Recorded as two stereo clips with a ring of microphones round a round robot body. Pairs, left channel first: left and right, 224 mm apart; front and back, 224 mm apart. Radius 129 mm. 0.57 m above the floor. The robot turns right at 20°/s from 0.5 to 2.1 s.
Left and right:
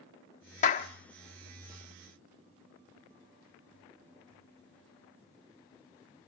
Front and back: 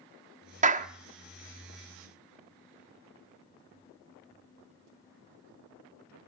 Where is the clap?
135° left, 1.2 m; by 0.9 s 140° left, 1.2 m.